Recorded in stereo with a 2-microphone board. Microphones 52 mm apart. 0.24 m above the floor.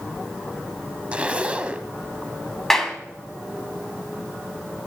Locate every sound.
1.1 s a zipper: 25° right (ahead or behind), 0.9 m
2.7 s a clap: 10° left (ahead or behind), 1.7 m